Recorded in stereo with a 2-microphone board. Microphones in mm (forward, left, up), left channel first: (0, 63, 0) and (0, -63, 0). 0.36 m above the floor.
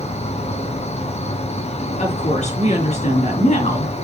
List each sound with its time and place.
0.0 s an insect: 60° left (ahead or behind), 1.9 m
2.0 s a woman speaking: 65° left (ahead or behind), 5 m